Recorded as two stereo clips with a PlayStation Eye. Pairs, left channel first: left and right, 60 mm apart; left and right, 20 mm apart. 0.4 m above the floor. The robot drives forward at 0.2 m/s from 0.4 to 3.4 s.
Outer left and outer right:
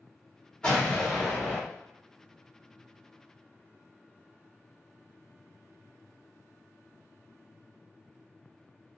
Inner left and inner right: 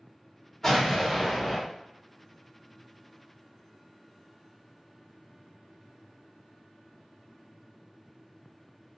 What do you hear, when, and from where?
0.6 s an explosion: 15° left (ahead or behind), 1.1 m